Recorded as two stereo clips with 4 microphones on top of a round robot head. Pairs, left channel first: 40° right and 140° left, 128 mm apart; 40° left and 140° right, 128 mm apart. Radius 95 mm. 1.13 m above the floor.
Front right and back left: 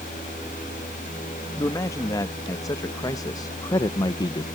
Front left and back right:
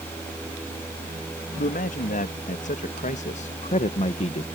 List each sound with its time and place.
1.6 s a man speaking: 25° left; by 4.5 s 10° left